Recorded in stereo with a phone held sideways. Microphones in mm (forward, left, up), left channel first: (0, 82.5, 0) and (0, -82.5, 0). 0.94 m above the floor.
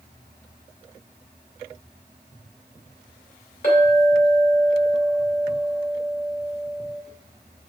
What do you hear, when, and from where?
3.6 s a clink: 55° left (ahead or behind), 2 m